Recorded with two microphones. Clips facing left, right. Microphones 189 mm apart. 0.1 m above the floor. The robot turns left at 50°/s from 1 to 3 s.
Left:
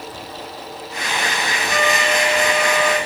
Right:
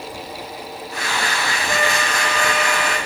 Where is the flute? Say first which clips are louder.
Left 4 dB; 165° left, 9.5 m; by 3.0 s 100° left, 9.5 m.